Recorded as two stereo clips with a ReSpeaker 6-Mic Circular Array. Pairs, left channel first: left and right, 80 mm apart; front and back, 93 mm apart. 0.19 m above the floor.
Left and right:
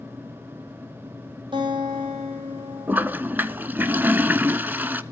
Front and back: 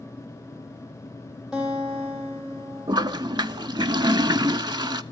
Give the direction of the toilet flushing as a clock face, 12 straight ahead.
5 o'clock.